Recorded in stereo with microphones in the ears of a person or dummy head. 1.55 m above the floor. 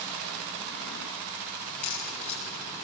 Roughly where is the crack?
Centre.